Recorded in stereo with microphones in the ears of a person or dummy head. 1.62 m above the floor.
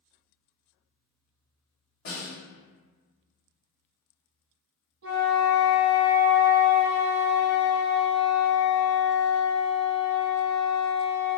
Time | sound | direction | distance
2.0 | a snare drum | 55° left (ahead or behind) | 1.3 m
5.0 | a flute | 65° right (ahead or behind) | 1.1 m